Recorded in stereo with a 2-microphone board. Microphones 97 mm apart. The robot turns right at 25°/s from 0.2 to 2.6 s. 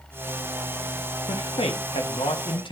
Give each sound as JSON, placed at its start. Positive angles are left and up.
{"t": 1.3, "sound": "a man speaking", "azimuth_deg": 85, "distance_m": 1.1}